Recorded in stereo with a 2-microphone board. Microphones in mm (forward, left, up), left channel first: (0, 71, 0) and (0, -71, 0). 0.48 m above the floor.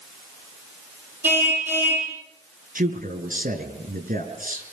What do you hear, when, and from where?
1.2 s a car horn: 15° right (ahead or behind), 8.5 m
2.8 s a man speaking: 75° right (ahead or behind), 5.5 m